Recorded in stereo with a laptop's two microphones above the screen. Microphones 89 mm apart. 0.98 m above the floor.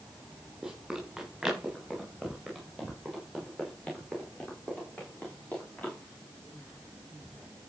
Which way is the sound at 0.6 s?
5° right (ahead or behind).